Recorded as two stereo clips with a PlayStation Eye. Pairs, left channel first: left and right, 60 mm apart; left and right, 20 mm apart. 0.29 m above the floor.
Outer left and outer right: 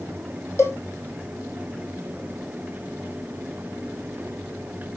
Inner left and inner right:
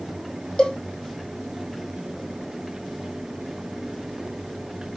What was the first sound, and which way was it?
A cowbell, 45° left (ahead or behind).